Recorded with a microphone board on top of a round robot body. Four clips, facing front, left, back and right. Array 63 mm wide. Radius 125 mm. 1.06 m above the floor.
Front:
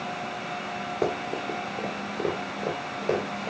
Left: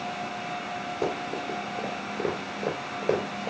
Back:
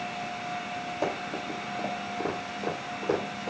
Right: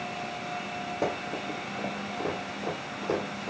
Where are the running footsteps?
Straight ahead, 1.3 m; by 3.5 s 75° left, 1.6 m.